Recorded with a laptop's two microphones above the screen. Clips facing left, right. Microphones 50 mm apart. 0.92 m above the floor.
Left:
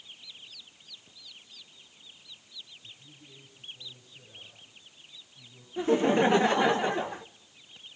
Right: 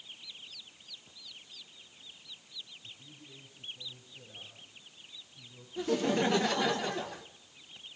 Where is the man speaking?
35° right (ahead or behind), 7.5 m.